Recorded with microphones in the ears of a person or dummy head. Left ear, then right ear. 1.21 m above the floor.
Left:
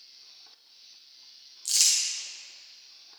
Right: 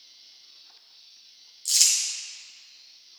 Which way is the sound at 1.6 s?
5° left (ahead or behind).